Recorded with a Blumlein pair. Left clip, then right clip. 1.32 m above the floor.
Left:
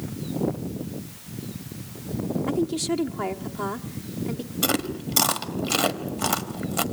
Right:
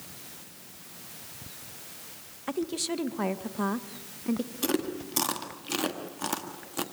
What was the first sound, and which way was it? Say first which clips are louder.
A woman speaking: left 4 dB; 5° left.